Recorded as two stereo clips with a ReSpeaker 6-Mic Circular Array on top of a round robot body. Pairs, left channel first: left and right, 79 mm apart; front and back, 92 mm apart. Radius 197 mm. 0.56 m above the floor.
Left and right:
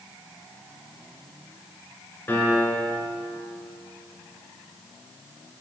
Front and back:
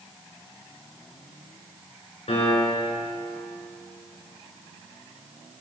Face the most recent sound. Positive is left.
turn(degrees=25)